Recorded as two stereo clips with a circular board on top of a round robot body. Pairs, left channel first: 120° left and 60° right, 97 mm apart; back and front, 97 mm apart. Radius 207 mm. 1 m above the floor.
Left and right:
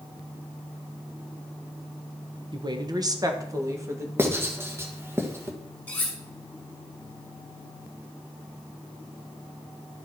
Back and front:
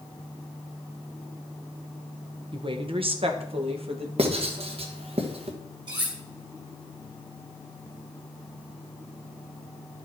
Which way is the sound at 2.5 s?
25° right.